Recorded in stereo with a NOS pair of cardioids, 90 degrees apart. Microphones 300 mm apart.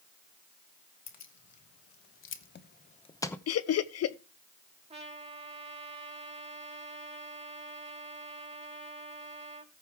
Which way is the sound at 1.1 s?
65° left.